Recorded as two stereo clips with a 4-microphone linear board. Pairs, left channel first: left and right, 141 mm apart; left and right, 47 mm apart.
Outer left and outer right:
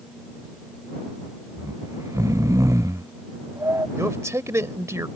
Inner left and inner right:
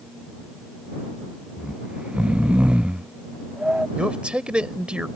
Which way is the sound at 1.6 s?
20° right (ahead or behind).